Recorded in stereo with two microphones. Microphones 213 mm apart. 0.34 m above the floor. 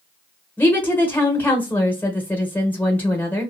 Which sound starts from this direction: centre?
A woman speaking, at 0.6 s.